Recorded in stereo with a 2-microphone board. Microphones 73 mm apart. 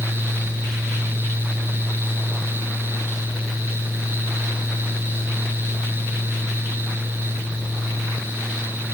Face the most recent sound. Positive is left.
No sound to turn to.